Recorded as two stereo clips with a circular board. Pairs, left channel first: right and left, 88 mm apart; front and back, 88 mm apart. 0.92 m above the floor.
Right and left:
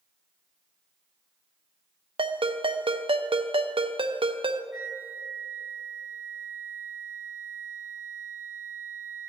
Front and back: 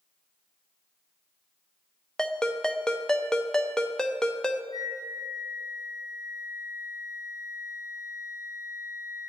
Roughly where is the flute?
Ahead left.